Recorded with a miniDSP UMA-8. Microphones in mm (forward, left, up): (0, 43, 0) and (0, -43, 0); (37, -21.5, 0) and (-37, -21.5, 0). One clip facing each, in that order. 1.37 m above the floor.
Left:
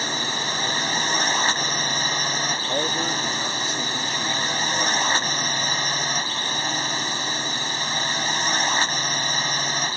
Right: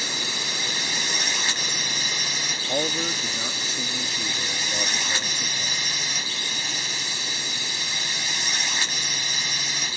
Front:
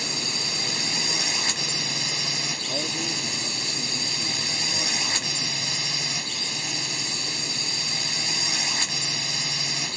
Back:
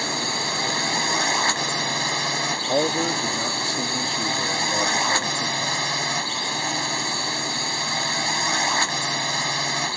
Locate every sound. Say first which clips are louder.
0.0 s a drone: left 5 dB, back 6 dB; 140° left
2.7 s a man speaking: right 1 dB, back 11 dB; straight behind